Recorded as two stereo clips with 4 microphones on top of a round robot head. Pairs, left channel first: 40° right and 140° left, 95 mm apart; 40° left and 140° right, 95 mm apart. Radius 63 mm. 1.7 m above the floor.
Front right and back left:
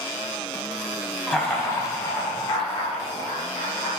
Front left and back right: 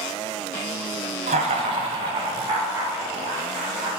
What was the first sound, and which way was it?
Laughter, 125° right.